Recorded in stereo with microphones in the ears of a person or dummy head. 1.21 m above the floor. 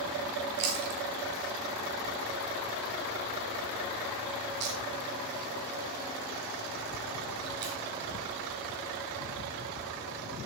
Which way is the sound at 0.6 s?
60° right (ahead or behind).